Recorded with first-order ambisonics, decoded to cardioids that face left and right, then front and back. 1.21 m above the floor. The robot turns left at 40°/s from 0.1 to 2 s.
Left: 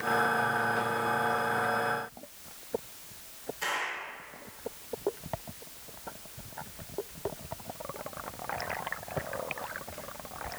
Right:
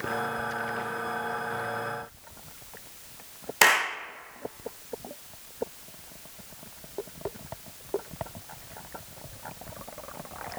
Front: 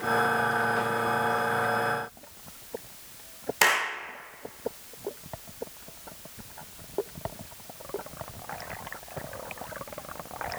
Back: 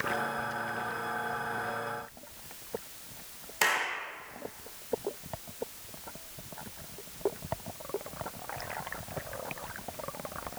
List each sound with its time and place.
3.6 s a clap: 70° right, 0.6 m